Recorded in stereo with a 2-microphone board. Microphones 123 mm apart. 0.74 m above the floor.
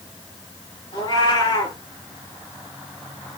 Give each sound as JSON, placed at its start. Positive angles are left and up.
{"t": 0.9, "sound": "a cat meowing", "side_deg": 40, "distance_m": 5.5}